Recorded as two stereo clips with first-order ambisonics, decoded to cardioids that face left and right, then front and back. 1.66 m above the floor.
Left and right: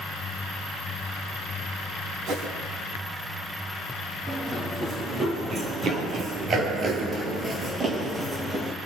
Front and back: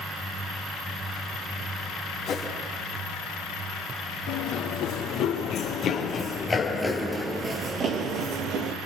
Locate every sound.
2.3 s a whoosh: 55° right, 4.5 m
4.3 s running footsteps: 25° right, 3.5 m; by 8.8 s 165° right, 2.5 m